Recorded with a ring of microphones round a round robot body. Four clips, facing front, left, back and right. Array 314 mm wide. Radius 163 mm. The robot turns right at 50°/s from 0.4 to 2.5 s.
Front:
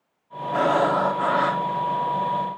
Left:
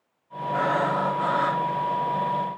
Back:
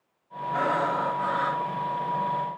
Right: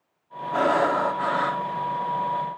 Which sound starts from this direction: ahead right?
Breathing, at 0.5 s.